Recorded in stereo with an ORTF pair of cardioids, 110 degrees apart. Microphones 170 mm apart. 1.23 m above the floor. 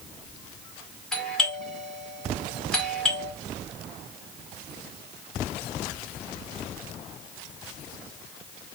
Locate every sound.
1.1 s a doorbell: 5° left, 1.5 m